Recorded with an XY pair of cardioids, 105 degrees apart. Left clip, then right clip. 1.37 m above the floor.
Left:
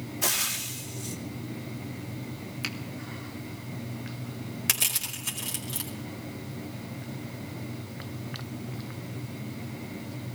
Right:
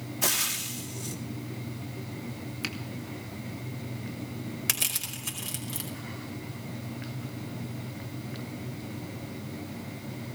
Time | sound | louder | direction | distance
0.2 | frying | even | 10° right | 2.5 m
2.6 | a finger snap | left 1 dB | straight ahead | 1.9 m
4.7 | crushing | left 2 dB | 5° left | 5 m